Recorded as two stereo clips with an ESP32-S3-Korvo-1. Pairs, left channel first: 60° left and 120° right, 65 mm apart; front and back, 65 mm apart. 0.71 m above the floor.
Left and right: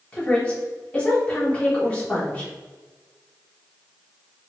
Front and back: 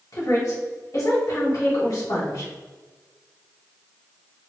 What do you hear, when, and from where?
0.1 s a woman speaking: 10° right, 1.9 m